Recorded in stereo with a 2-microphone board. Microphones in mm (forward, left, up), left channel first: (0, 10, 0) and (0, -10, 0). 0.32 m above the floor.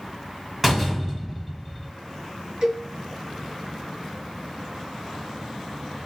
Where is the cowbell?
50° right (ahead or behind), 2.5 m.